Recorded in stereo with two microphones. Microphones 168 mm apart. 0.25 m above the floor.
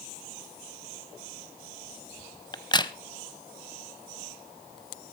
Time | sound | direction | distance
2.5 | a crack | 25° left (ahead or behind) | 0.9 m